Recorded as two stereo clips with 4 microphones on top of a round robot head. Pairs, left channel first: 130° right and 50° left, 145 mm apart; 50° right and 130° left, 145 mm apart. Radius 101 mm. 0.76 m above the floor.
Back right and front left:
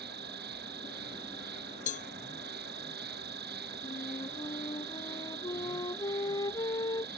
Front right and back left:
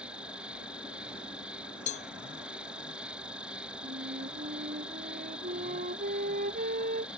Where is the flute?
165° left.